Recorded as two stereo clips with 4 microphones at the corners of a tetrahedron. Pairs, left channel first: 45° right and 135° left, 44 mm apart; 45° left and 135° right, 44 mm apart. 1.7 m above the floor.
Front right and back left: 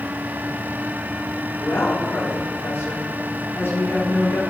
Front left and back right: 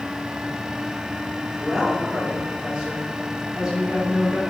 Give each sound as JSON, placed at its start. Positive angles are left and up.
{"t": 1.6, "sound": "a woman speaking", "azimuth_deg": -65, "distance_m": 5.0}